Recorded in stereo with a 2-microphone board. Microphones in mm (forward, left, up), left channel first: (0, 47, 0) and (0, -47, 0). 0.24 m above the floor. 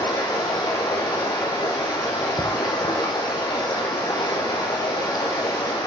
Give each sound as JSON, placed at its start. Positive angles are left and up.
{"t": 0.0, "sound": "running water", "side_deg": 50, "distance_m": 1.8}